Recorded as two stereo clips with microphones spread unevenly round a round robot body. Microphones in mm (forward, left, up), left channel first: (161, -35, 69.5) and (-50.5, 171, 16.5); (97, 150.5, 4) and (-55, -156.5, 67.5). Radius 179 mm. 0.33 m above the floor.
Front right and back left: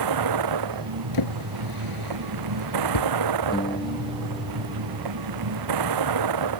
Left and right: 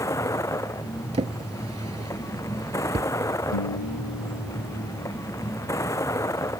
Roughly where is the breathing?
No breathing in this recording.